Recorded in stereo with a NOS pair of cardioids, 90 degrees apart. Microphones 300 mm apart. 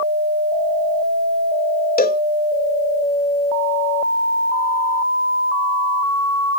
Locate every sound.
2.0 s a cowbell: 25° left